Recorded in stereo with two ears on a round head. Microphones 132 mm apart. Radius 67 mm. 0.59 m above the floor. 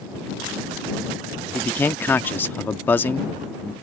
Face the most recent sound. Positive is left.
turn(degrees=15)  # may be behind; listen again after turning